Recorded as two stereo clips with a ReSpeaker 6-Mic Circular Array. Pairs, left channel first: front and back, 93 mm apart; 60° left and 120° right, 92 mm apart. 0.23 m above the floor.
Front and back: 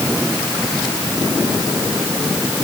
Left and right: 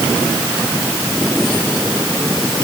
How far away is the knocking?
I don't hear knocking.